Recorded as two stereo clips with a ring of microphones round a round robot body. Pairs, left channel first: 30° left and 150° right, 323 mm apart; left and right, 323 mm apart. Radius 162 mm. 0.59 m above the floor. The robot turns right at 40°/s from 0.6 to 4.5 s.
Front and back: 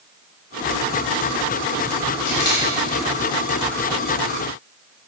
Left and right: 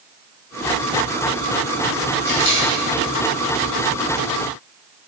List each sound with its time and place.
2.3 s a camera shutter: 30° left, 4 m; by 2.6 s 45° left, 4 m